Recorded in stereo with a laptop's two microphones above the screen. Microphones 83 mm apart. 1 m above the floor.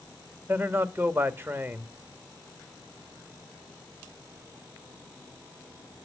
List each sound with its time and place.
0.5 s a man speaking: 25° right (ahead or behind), 1.6 m